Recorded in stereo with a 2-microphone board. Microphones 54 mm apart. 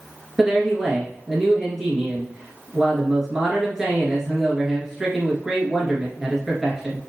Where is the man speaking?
5° right (ahead or behind), 1.6 m.